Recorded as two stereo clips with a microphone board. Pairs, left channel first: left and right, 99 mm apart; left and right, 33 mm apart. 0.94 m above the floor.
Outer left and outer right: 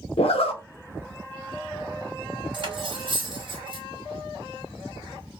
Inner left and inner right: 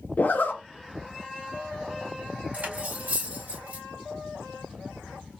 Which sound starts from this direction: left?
A zipper, at 0.2 s.